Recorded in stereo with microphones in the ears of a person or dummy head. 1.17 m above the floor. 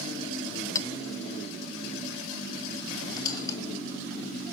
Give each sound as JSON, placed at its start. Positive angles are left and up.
{"t": 0.8, "sound": "a clink", "side_deg": 20, "distance_m": 0.7}
{"t": 3.1, "sound": "a squeak", "side_deg": 20, "distance_m": 2.5}